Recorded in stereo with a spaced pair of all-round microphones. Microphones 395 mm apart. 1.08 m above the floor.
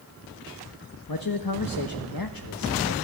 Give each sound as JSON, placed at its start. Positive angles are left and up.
{"t": 1.1, "sound": "a man speaking", "side_deg": 60, "distance_m": 1.4}